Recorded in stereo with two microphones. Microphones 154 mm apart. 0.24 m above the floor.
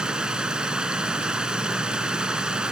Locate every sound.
0.0 s running water: 5° right (ahead or behind), 1.6 m